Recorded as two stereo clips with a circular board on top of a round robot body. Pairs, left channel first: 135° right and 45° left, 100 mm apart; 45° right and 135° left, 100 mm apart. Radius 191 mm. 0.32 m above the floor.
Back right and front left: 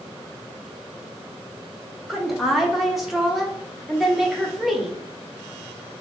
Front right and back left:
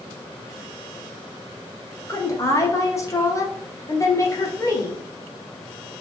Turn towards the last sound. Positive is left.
turn(degrees=-40)